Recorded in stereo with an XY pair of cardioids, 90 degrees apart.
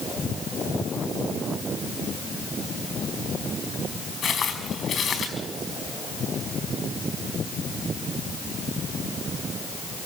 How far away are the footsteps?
About 5 m.